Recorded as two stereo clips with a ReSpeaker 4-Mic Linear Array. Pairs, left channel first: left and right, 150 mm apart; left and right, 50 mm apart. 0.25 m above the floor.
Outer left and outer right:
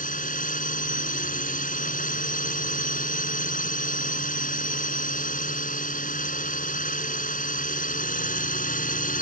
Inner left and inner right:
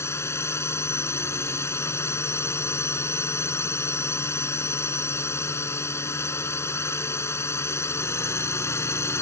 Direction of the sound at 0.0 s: 65° left (ahead or behind).